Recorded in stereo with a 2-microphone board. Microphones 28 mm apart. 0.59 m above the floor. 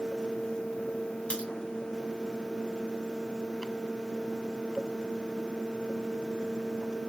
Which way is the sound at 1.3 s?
50° left (ahead or behind).